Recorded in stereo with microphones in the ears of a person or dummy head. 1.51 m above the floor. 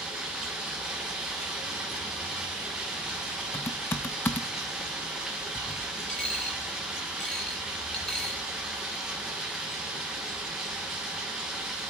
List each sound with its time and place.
0.0 s running water: centre (ahead or behind), 0.9 m
3.5 s typing on a keyboard: 10° left (ahead or behind), 0.6 m
6.1 s a dropped coin: centre (ahead or behind), 2.0 m